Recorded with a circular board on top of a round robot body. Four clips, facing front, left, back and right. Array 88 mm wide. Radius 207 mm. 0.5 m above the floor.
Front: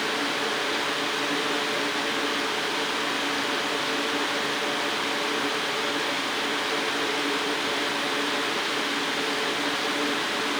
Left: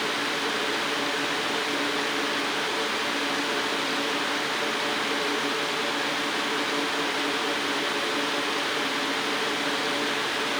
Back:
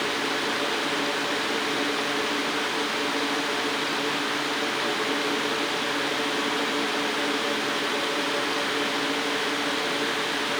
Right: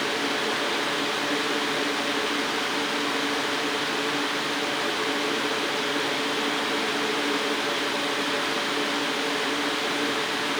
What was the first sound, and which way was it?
Only background noise.